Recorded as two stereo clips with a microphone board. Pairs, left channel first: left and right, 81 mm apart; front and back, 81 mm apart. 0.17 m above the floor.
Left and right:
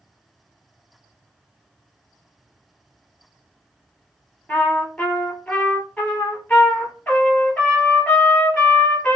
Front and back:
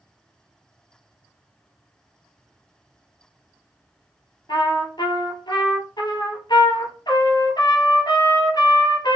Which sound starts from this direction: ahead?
A trumpet, at 4.5 s.